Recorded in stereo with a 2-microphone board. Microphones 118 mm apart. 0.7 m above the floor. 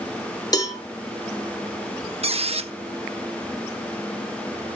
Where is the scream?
I don't hear a scream.